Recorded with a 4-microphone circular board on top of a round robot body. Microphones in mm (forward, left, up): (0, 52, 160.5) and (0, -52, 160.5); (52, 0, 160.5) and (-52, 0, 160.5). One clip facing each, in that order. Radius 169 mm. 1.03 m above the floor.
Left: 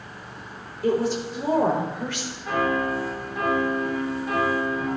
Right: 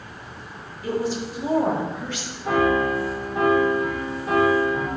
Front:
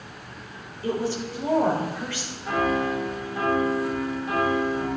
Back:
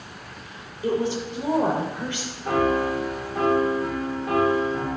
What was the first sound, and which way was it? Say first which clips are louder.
A woman speaking: left 3 dB, back 3 dB; 110° left.